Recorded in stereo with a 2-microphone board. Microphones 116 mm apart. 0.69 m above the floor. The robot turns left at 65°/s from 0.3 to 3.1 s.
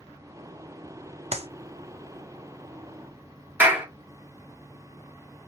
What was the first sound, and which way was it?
A clap, 65° right (ahead or behind).